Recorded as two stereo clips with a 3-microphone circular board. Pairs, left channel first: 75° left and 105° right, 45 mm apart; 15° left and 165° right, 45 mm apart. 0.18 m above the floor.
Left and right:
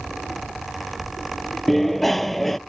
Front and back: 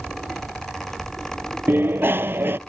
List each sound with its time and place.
1.7 s a bicycle bell: 160° left